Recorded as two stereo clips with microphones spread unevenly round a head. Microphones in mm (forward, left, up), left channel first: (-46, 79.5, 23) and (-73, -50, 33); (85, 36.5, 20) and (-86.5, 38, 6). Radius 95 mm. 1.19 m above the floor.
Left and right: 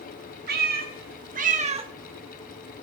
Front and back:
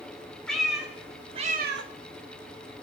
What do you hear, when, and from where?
0.5 s a cat meowing: 85° right, 2.5 m; by 1.9 s 155° right, 1.2 m